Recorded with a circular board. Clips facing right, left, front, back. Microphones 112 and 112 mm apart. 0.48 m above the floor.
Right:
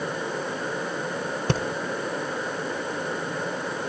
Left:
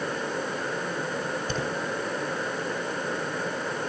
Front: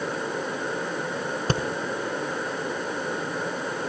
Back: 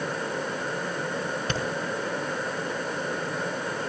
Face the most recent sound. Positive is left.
turn(degrees=-60)